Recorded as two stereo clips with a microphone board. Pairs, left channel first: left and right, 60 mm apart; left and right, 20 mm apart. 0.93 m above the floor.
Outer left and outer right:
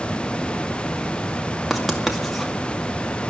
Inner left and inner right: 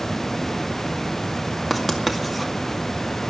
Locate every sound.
1.7 s writing: centre (ahead or behind), 2 m